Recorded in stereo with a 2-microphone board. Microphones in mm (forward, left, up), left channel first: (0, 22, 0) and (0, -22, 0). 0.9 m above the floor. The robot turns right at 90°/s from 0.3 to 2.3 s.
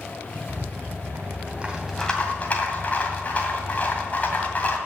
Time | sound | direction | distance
0.5 | a rattle | 130° right | 2 m